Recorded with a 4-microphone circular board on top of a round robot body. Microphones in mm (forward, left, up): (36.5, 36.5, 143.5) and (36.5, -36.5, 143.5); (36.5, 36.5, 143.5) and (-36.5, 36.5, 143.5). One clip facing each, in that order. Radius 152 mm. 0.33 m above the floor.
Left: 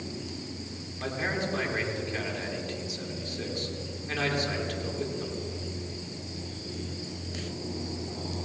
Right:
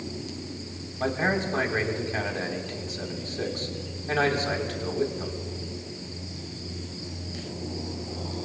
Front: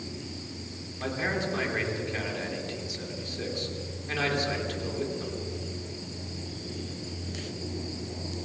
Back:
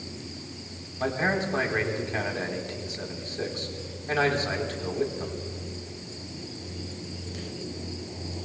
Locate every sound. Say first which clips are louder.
1.0 s a man speaking: right 5 dB, back 4 dB; 130° right, 3 m